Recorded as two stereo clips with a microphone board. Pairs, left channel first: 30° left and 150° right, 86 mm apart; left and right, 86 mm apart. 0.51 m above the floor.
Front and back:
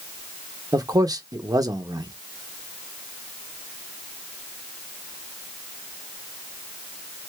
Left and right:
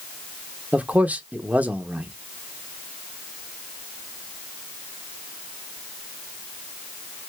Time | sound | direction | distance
0.7 | a man speaking | 155° right | 0.9 m